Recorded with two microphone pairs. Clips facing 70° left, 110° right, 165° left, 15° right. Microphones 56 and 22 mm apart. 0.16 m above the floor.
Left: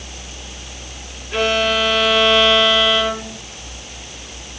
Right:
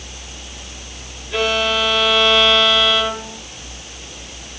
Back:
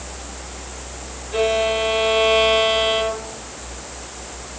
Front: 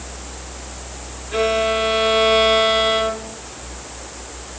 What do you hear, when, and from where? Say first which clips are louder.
1.3 s a violin: left 1 dB, front 1 dB; 20° left, 3 m